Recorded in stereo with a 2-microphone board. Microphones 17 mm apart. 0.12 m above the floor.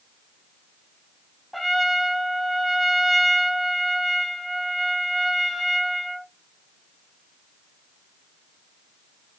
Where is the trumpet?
5° right (ahead or behind), 0.9 m.